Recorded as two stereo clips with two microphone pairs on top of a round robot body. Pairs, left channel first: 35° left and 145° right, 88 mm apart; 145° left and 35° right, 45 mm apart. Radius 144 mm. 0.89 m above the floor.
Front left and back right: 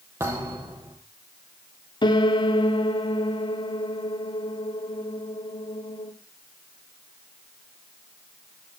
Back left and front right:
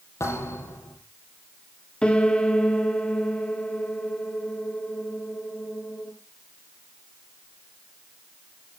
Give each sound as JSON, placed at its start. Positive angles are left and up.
{"t": 0.2, "sound": "a thud", "azimuth_deg": 155, "distance_m": 7.0}
{"t": 2.0, "sound": "a piano", "azimuth_deg": 70, "distance_m": 1.8}